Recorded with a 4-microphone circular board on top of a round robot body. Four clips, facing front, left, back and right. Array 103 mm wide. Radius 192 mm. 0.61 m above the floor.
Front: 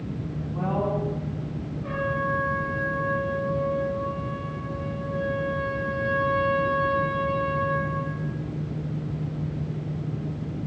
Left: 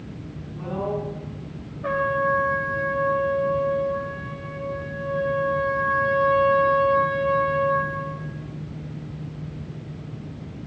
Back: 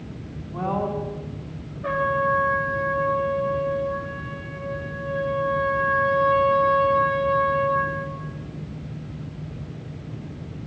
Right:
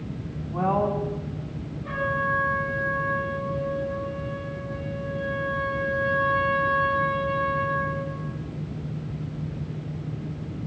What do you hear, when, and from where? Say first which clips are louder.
0.5 s a woman speaking: right 4 dB, back 1 dB; 105° right, 5.5 m
1.8 s a trumpet: left 5 dB, back 6 dB; 125° left, 6 m